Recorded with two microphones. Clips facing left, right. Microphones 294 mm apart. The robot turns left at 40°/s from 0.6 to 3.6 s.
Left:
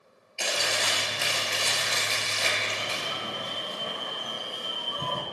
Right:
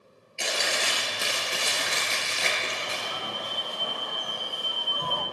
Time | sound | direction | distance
0.4 | chewing | 25° right | 1.8 m
2.8 | an alarm | 145° left | 0.8 m